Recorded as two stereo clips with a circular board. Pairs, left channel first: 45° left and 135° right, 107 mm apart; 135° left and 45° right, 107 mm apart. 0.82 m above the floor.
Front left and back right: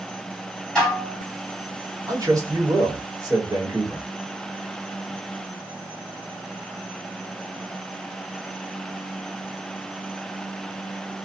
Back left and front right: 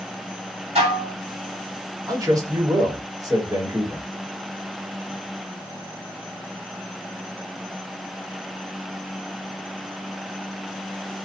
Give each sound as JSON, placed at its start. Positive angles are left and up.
{"t": 0.8, "sound": "dishes clattering", "azimuth_deg": -35, "distance_m": 1.4}
{"t": 2.1, "sound": "a man speaking", "azimuth_deg": -90, "distance_m": 1.4}